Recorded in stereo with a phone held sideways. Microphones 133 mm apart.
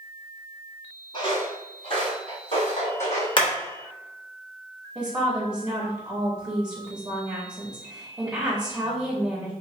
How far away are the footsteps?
About 1.5 m.